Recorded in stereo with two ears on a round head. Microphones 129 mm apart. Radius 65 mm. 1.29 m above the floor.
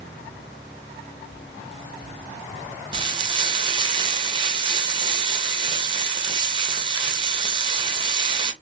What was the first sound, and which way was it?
Frying, 30° right (ahead or behind).